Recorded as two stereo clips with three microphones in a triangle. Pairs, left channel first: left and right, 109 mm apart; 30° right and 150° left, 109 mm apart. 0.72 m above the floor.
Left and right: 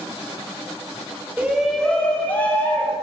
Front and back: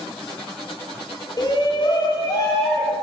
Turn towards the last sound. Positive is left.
turn(degrees=20)